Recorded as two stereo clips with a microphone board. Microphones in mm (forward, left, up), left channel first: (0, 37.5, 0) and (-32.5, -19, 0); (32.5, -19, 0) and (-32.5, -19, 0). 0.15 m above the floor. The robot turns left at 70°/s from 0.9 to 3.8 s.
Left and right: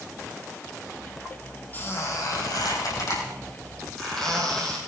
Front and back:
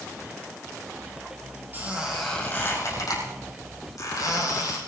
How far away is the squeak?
About 5 m.